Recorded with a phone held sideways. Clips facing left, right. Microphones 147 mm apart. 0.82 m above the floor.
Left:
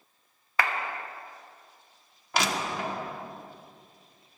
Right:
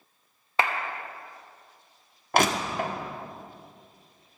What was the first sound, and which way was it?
A clap, 25° right (ahead or behind).